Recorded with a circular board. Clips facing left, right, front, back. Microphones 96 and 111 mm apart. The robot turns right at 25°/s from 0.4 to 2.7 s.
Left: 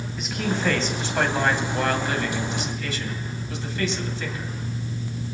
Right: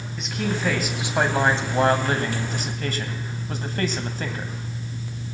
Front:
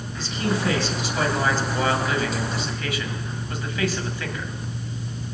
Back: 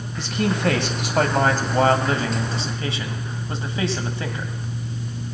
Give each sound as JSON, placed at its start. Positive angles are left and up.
{"t": 0.2, "sound": "a man speaking", "azimuth_deg": 180, "distance_m": 2.0}